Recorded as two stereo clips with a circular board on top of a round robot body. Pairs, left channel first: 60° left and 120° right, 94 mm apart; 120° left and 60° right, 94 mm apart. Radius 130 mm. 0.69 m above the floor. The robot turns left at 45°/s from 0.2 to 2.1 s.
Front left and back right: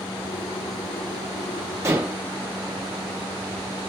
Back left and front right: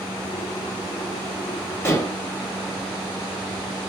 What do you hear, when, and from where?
1.8 s dishes clattering: 175° right, 0.9 m; by 2.2 s 170° left, 0.9 m